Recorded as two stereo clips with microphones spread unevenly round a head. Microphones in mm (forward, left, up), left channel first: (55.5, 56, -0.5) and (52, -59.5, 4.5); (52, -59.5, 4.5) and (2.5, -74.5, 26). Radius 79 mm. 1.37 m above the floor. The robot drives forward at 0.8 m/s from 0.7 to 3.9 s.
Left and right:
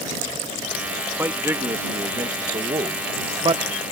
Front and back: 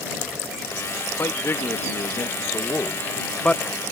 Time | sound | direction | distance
1.2 | a man speaking | 20° right | ?